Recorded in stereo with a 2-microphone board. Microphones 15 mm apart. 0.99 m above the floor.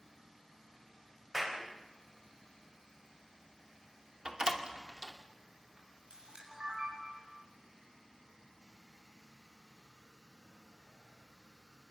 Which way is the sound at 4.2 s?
45° right (ahead or behind).